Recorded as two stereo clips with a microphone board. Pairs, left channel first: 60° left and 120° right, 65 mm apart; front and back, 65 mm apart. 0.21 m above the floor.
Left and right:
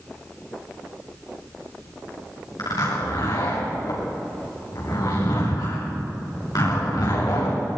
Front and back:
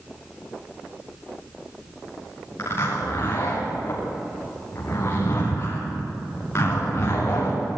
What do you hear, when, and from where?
2.6 s a zipper: 50° left, 9.5 m